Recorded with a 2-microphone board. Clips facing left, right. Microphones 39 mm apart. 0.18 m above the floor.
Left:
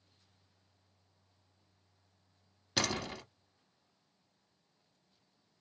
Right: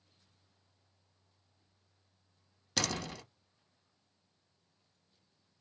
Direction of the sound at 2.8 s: 10° left (ahead or behind).